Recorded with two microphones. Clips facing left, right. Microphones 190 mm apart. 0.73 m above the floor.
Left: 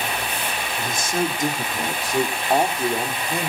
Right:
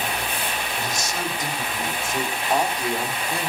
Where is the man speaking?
55° left (ahead or behind), 2 m; by 3.5 s 15° left (ahead or behind), 2 m.